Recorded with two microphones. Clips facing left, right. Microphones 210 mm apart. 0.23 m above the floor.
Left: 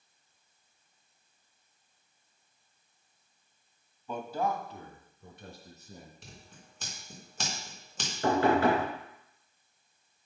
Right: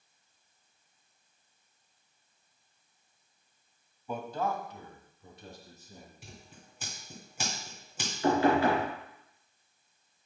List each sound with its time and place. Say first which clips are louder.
4.1 s a man speaking: left 1 dB; 10° right (ahead or behind), 1.1 m; by 6.1 s 65° left (ahead or behind), 3 m
6.2 s scissors: right 1 dB; 10° right (ahead or behind), 2.5 m
8.2 s knocking: even; 50° left (ahead or behind), 3.5 m